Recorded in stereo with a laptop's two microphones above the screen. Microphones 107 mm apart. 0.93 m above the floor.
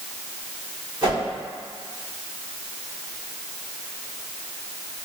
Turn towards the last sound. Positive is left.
turn(degrees=-45)  # may be behind; listen again after turning